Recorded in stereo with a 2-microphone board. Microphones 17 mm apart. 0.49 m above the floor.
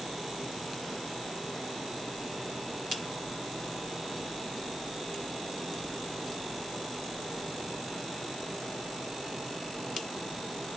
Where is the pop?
No pop in this recording.